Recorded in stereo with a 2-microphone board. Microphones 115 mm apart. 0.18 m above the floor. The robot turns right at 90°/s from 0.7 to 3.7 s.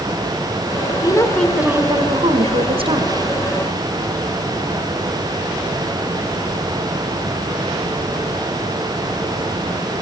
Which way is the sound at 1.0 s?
135° left.